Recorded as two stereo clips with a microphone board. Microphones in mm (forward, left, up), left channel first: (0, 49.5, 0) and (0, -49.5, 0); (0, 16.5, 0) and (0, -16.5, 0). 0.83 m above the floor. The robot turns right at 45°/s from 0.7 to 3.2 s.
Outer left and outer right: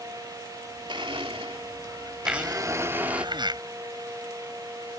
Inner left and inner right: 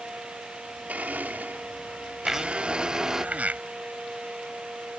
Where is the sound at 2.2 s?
175° right; by 3.6 s 130° right.